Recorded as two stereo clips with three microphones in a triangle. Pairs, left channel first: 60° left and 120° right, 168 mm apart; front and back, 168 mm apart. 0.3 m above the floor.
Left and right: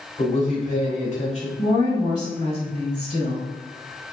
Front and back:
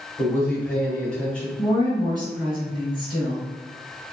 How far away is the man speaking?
About 1.4 m.